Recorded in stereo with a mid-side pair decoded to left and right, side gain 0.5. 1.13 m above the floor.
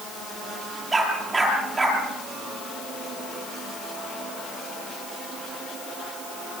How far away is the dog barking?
About 10 m.